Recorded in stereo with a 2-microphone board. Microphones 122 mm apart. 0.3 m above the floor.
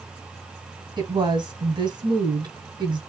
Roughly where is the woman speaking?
Right.